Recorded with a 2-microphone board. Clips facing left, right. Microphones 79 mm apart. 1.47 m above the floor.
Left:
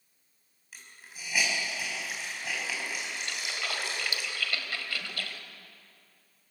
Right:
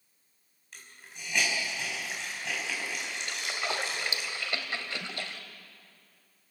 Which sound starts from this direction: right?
A splash, at 3.3 s.